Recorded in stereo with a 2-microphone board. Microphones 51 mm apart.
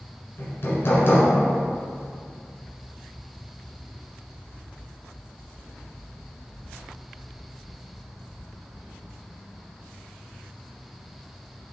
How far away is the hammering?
About 1.7 m.